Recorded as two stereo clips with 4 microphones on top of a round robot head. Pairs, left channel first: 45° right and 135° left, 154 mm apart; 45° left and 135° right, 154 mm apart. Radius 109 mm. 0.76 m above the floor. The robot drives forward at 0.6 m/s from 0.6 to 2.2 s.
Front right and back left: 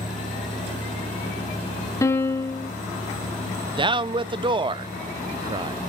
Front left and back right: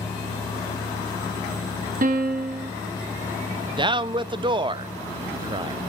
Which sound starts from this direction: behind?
A man speaking, at 3.8 s.